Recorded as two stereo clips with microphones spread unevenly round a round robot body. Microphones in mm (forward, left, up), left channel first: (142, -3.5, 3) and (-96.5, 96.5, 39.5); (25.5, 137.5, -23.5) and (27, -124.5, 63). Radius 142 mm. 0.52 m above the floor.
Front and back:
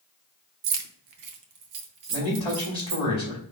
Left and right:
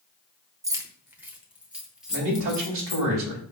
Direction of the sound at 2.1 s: 125° right.